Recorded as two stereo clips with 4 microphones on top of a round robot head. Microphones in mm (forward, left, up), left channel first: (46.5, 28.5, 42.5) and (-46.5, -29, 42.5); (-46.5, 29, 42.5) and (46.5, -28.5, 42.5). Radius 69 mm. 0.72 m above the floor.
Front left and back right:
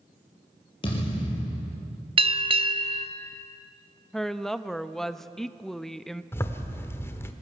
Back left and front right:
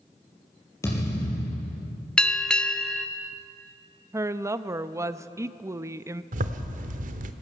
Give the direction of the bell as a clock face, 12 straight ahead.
4 o'clock.